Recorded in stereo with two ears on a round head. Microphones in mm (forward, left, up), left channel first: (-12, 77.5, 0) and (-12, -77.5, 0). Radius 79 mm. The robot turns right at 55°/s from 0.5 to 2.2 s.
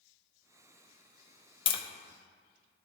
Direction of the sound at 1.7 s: 25° left (ahead or behind).